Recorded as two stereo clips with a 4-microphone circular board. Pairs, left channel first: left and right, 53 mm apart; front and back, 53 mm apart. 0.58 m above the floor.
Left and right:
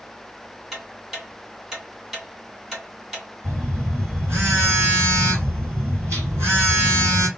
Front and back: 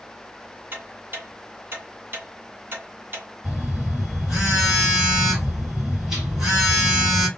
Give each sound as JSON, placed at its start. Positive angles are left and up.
{"t": 0.7, "sound": "ticking", "azimuth_deg": -165, "distance_m": 1.5}
{"t": 3.4, "sound": "a phone buzzing", "azimuth_deg": -95, "distance_m": 1.9}